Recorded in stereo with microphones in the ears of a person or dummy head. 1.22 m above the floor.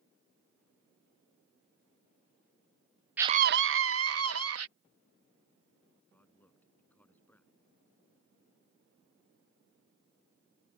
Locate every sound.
3.2 s a scream: 10° right (ahead or behind); by 4.7 s 80° right
6.1 s a man speaking: 5° left (ahead or behind)